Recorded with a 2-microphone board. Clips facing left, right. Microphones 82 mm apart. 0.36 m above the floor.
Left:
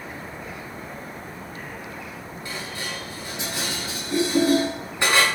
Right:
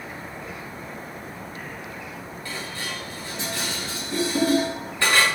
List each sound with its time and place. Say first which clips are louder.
2.5 s dishes clattering: even; 15° left (ahead or behind), 2 m